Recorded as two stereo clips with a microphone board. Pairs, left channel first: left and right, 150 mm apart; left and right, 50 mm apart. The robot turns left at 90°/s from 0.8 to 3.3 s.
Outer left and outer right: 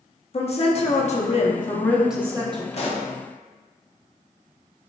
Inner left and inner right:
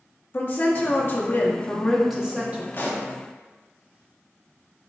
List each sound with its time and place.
0.3 s a woman speaking: 115° left, 0.7 m; by 2.6 s 50° right, 0.7 m
2.7 s a pop: 45° left (ahead or behind), 0.5 m; by 3.1 s 30° left (ahead or behind), 0.5 m